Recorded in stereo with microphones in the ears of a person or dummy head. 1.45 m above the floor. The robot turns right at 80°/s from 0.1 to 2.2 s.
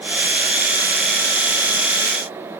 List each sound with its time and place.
Only background noise.